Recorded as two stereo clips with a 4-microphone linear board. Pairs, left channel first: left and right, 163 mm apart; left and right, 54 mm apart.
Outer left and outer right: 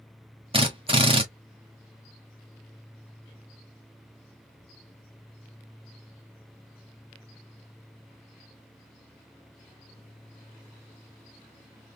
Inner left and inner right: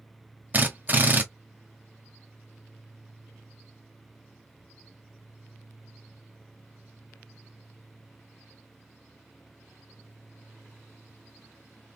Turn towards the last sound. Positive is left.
turn(degrees=-35)  # may be behind; listen again after turning